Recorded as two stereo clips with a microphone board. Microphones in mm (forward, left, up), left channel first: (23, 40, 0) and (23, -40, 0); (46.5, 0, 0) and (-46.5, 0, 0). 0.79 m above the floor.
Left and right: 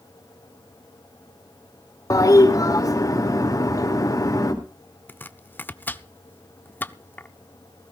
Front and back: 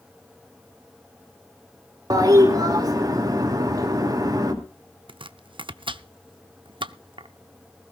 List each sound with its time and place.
2.1 s a toilet flushing: 130° left, 2.5 m
5.1 s chopping: 155° left, 0.6 m